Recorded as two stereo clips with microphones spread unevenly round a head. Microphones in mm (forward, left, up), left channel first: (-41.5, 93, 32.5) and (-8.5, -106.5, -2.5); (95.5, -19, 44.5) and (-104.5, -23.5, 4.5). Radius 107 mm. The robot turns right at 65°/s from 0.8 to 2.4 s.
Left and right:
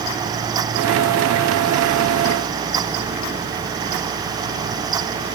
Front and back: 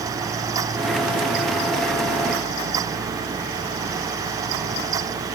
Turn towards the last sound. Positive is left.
No sound to turn to.